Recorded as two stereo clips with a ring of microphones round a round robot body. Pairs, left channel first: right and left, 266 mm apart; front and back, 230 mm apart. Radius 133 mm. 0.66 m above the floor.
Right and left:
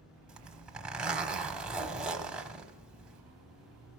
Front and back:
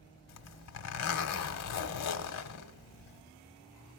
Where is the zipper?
5° left, 0.9 m.